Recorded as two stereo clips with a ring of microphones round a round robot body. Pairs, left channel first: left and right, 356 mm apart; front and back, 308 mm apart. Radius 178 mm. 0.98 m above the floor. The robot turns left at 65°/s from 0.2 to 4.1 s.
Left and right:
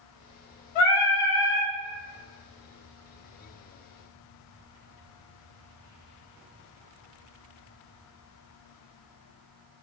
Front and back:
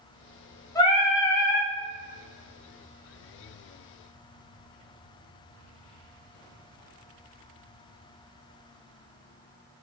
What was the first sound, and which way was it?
Singing, 80° left.